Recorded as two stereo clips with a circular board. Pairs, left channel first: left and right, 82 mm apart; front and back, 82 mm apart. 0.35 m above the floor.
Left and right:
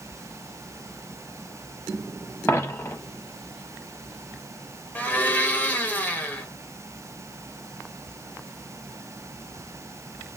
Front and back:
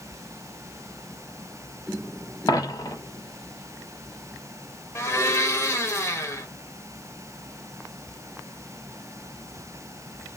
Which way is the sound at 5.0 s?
30° left.